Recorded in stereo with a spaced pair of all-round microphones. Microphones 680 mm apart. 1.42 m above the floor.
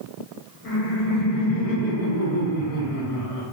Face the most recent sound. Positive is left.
turn(degrees=55)  # may be behind; listen again after turning